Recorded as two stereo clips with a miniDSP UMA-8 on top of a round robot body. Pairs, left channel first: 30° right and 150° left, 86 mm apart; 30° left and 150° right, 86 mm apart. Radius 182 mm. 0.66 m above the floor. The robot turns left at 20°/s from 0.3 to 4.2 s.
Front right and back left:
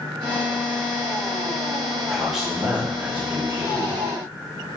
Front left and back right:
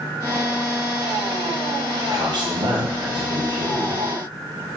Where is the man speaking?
120° right, 1.4 m; by 4.0 s 160° right, 1.4 m.